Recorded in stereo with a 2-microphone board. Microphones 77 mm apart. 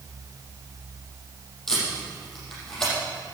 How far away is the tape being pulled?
About 7 m.